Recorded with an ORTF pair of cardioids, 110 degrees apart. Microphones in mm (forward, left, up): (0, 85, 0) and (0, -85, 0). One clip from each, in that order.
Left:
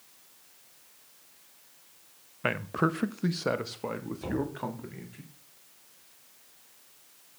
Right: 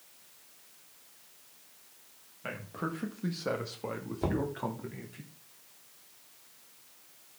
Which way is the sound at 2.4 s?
70° left.